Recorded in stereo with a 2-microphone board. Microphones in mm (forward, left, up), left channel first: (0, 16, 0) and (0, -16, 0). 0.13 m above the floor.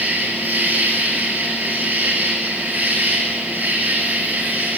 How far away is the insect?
About 7 m.